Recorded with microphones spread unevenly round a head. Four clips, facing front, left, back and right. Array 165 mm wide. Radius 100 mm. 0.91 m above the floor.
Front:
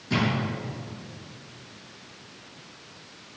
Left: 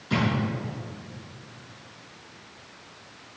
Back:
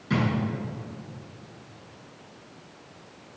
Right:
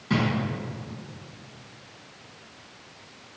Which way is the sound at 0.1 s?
125° right.